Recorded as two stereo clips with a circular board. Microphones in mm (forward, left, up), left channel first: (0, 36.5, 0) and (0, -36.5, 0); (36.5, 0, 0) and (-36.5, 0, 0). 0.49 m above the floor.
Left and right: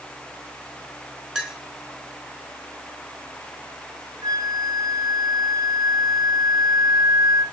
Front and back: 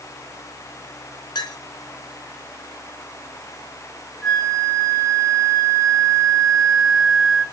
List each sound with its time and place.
1.4 s a clink: 10° right, 3.5 m
4.2 s a flute: 85° right, 2 m